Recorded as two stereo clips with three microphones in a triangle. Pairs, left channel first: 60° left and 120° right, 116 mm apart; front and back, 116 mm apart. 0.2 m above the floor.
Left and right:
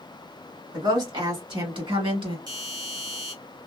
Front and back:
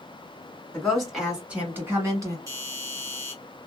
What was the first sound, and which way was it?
A woman speaking, 80° right.